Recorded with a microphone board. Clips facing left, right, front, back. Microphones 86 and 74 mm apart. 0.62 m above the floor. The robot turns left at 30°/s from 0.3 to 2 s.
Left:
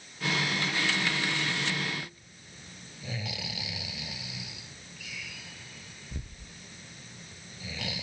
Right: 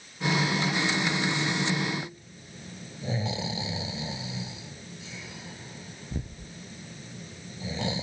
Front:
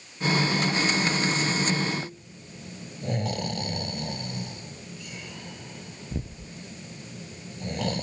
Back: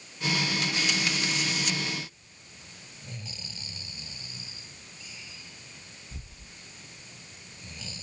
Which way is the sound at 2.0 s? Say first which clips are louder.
Right 5 dB, front 8 dB; 30° right.